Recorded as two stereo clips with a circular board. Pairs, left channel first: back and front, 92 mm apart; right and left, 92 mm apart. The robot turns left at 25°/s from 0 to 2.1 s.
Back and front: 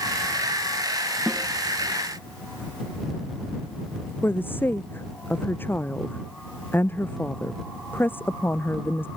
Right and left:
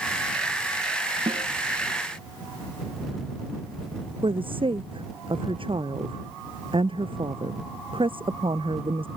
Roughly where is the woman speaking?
Left.